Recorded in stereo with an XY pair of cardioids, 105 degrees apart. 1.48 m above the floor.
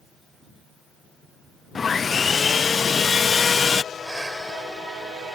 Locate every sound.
1.8 s sawing: 40° left
3.9 s breathing: 15° right